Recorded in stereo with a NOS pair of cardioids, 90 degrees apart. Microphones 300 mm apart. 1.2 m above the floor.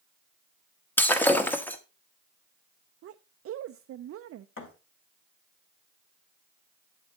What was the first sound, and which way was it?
Breaking glass, 5° left.